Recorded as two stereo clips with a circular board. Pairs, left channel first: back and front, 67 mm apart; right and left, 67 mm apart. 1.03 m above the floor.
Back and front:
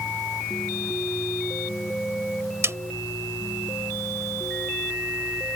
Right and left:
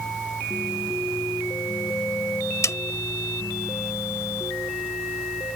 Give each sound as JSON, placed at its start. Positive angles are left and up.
{"t": 2.6, "sound": "a snare drum", "azimuth_deg": -45}